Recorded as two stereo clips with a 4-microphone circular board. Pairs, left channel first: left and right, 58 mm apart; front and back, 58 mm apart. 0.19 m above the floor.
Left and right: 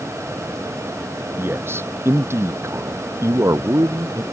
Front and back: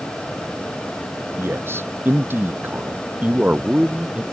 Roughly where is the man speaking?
Behind right.